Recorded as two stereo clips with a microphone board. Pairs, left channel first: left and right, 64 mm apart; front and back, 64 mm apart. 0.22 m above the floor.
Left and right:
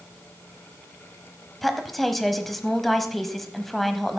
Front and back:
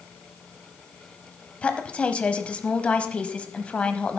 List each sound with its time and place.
1.6 s a woman speaking: 5° left, 0.9 m